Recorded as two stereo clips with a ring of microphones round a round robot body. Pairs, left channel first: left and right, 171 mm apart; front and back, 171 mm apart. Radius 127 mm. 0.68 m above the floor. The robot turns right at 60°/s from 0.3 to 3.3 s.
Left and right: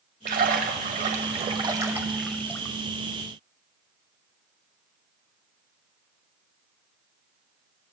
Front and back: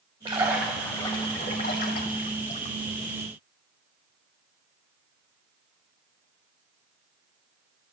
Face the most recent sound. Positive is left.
turn(degrees=65)